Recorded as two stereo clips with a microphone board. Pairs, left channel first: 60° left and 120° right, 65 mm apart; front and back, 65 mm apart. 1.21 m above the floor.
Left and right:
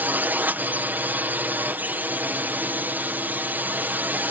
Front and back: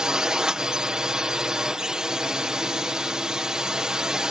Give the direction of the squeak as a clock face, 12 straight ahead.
I don't hear a squeak.